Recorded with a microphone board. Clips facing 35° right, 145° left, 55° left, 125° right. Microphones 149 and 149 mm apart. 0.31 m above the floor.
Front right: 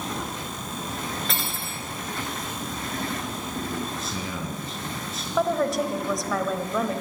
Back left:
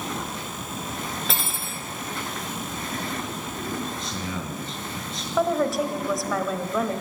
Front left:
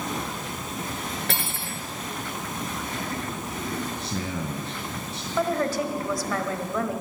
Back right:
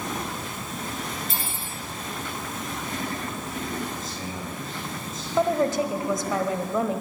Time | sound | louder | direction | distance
1.3 | cutlery clinking | even, front left 2 dB | 55° left | 2 m
4.0 | a man speaking | even, front left 3 dB | 45° left | 4 m
5.4 | a woman speaking | back left 1 dB, back right 3 dB | 130° right | 1.1 m